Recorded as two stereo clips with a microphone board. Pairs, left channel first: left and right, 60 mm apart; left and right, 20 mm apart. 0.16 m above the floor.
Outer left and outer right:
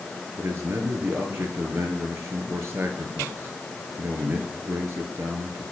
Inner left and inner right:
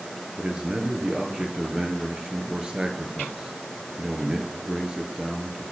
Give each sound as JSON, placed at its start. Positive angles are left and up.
{"t": 0.4, "sound": "a man speaking", "side_deg": -45, "distance_m": 3.0}